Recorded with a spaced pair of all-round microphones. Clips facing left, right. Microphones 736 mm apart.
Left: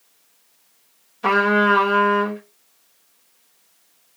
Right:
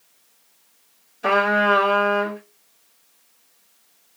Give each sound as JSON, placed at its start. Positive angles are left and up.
{"t": 1.2, "sound": "a trumpet", "side_deg": 35, "distance_m": 1.4}